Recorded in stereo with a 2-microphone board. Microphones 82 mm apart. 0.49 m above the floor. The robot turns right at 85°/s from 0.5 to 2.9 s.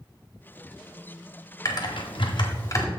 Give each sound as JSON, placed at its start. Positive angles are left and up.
{"t": 1.6, "sound": "typing on a keyboard", "side_deg": 45, "distance_m": 1.7}